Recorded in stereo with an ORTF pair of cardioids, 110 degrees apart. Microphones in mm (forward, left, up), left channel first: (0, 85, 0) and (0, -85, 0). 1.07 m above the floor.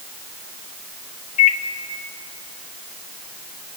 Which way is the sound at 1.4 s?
45° left.